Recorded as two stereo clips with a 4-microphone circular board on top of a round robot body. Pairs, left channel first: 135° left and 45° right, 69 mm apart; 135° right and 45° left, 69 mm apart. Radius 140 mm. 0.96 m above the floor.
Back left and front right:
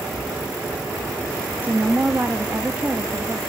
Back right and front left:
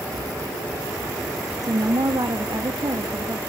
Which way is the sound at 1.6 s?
25° left.